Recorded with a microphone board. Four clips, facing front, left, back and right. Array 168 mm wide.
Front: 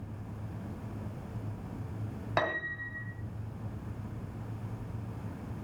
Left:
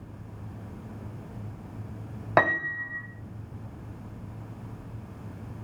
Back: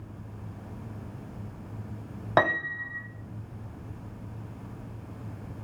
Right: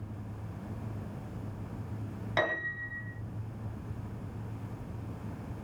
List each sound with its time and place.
2.4 s a piano: 125° left, 2.5 m